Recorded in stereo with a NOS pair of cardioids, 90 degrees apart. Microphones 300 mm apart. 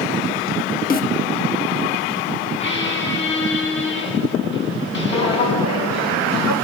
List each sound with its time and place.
0.9 s a snare drum: 30° left, 1.7 m
2.6 s a squeak: 45° left, 7.5 m
5.1 s footsteps: 70° left, 4.5 m